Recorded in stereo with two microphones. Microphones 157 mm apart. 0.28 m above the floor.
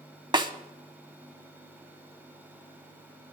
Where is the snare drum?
30° right (ahead or behind), 1.1 m.